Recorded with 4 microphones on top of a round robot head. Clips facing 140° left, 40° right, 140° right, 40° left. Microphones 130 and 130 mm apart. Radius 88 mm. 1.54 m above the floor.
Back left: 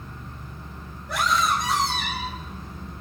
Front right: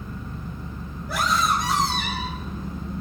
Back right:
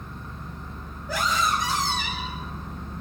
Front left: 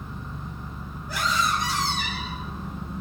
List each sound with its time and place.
0.0 s an engine running: 45° right, 4 m
1.1 s a scream: 125° right, 9 m